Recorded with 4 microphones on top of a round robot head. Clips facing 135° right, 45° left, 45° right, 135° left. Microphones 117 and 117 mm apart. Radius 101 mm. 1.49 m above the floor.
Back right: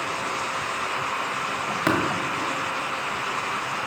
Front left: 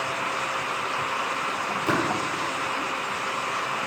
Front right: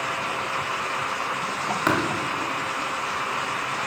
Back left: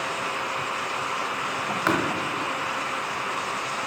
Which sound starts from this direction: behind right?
Tapping, at 1.9 s.